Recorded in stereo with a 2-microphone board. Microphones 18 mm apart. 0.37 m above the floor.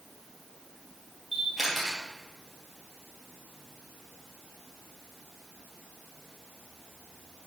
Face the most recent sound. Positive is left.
turn(degrees=-5)  # may be behind; listen again after turning